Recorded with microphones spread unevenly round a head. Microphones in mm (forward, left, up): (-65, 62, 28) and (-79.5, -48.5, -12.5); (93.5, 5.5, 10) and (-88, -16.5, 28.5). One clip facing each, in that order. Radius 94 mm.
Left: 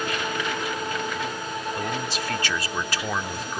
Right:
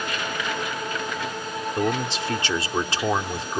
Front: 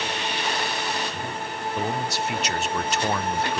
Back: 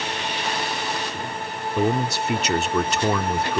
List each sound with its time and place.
1.8 s a man speaking: 160° right